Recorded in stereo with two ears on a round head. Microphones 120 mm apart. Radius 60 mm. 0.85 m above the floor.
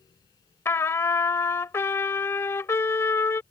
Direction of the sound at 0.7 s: 20° left (ahead or behind).